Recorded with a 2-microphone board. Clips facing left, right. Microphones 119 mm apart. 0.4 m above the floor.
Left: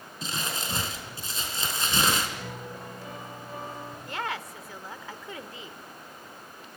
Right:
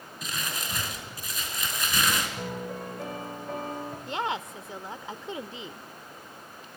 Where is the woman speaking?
20° right (ahead or behind), 0.8 m.